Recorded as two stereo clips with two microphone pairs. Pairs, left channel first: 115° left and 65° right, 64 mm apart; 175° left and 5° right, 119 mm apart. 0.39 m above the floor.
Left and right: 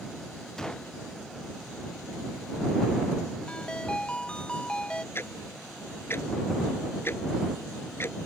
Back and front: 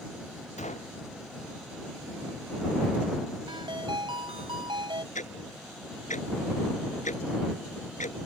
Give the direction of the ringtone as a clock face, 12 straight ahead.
11 o'clock.